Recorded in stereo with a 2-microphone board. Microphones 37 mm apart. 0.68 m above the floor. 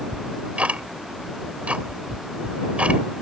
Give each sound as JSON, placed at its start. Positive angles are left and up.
{"t": 0.1, "sound": "ticking", "side_deg": -40}